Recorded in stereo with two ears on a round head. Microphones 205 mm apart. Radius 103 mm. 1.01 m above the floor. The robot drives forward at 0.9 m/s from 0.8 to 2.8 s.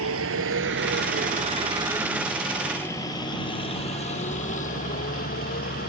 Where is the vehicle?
75° right (ahead or behind); by 5.9 s 45° left (ahead or behind).